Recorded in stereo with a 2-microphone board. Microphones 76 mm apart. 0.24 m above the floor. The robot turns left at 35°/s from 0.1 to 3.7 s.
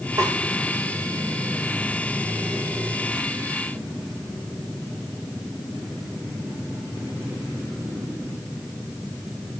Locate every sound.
0.2 s a snare drum: 50° right (ahead or behind), 8 m; by 0.3 s 40° right (ahead or behind), 8 m